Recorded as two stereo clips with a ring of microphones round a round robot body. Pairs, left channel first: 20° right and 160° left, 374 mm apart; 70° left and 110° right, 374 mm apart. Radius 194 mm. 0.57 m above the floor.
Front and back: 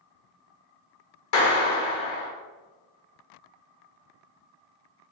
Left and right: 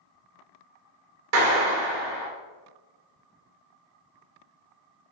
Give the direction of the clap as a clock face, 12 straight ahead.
2 o'clock.